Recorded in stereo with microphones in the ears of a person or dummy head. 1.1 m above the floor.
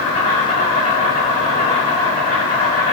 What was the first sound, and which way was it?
An insect, 30° left (ahead or behind).